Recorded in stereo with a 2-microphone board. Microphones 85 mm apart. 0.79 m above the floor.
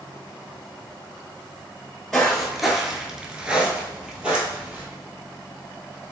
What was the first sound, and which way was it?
Footsteps, 5° left (ahead or behind).